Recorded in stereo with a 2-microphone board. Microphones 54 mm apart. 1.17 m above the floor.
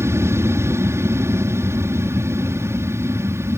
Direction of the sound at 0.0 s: 55° right (ahead or behind).